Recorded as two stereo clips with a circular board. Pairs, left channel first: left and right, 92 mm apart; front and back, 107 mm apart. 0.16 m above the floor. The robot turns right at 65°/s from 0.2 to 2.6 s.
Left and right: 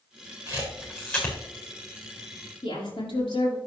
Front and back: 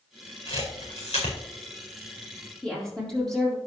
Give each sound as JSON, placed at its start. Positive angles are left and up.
{"t": 0.5, "sound": "a camera shutter", "azimuth_deg": -45, "distance_m": 4.0}
{"t": 2.6, "sound": "a woman speaking", "azimuth_deg": 85, "distance_m": 4.5}